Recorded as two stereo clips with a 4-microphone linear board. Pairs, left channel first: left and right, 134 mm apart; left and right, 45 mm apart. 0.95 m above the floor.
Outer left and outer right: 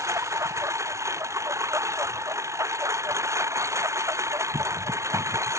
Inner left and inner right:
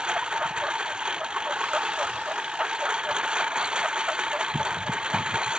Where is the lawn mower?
20° right (ahead or behind).